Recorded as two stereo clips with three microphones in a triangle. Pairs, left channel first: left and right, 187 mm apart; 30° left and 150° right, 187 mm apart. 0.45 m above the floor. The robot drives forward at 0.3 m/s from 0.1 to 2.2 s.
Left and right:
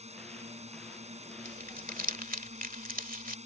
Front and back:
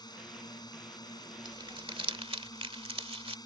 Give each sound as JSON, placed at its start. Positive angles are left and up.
{"t": 0.0, "sound": "a drone", "azimuth_deg": -35}
{"t": 1.4, "sound": "crumpling", "azimuth_deg": -95}